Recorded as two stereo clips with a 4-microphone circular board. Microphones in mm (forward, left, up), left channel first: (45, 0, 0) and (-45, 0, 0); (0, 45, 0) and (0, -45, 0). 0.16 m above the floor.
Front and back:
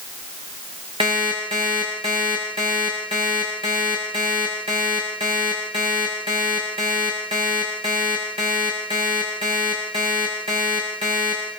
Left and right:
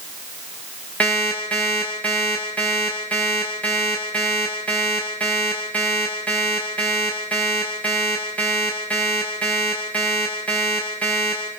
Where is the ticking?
I don't hear ticking.